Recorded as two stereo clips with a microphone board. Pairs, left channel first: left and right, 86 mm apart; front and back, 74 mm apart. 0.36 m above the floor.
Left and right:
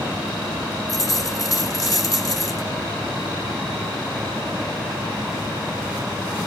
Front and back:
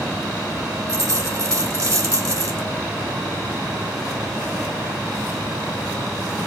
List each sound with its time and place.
0.9 s a dropped coin: 135° left, 2 m